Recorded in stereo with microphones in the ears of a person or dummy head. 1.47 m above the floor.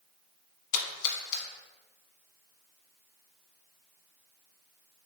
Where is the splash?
35° left (ahead or behind), 0.8 m.